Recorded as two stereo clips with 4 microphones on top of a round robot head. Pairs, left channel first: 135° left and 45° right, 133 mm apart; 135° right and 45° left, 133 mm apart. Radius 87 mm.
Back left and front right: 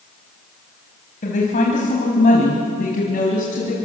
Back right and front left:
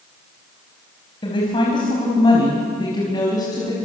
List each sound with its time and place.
1.2 s a woman speaking: 170° left, 4.5 m; by 3.8 s 160° left, 5.5 m